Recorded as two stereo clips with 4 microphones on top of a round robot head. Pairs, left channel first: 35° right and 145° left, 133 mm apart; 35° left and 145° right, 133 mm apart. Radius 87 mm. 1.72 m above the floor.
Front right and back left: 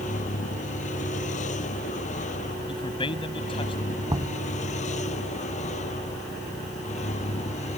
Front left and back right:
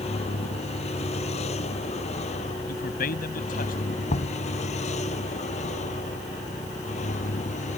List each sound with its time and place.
0.0 s a vehicle: 5° right; by 7.8 s straight ahead
2.7 s a man speaking: 15° left
4.1 s knocking: 80° left